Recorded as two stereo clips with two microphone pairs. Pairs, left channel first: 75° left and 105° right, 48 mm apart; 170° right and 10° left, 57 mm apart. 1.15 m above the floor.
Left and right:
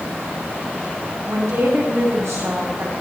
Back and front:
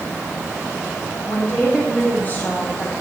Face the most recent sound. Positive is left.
turn(degrees=-105)